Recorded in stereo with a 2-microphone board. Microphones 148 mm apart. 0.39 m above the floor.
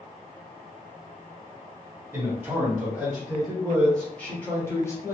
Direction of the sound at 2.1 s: 10° right (ahead or behind).